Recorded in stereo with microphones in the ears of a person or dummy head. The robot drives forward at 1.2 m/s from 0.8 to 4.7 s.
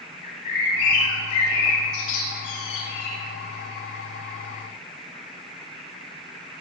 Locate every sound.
0.2 s a bird: 80° left, 5.5 m; by 3.1 s 70° left (ahead or behind), 6 m